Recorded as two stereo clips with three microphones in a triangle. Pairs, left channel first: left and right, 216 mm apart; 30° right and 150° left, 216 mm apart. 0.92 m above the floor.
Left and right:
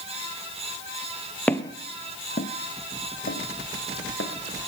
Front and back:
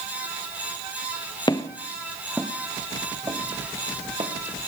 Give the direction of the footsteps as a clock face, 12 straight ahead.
12 o'clock.